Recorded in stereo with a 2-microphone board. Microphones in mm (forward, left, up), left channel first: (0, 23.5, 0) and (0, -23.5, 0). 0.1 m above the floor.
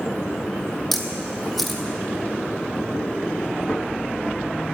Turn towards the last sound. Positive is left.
turn(degrees=5)  # may be behind; listen again after turning